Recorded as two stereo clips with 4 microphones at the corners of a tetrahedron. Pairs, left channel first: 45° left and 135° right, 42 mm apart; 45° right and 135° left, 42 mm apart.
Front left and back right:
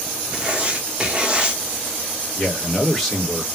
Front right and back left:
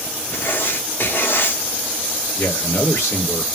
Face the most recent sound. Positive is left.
turn(degrees=-40)